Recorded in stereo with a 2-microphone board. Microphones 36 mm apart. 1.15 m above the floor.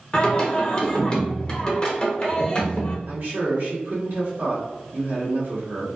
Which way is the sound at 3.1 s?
70° right (ahead or behind).